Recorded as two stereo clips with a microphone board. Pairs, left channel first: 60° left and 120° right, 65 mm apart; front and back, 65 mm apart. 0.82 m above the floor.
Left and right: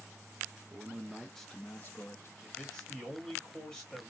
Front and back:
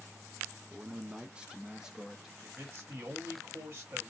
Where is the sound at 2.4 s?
155° left, 1.8 m.